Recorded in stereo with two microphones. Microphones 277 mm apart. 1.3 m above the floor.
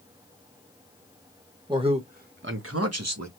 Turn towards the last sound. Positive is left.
turn(degrees=-75)  # may be behind; listen again after turning